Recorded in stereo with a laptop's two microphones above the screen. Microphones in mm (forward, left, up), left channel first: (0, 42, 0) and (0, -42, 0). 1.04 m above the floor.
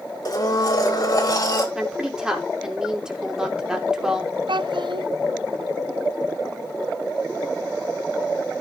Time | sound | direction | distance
0.2 | a blender | 45° left (ahead or behind) | 1.5 m
1.8 | a woman speaking | 10° right (ahead or behind) | 2.5 m
4.5 | a child speaking | 70° right (ahead or behind) | 0.6 m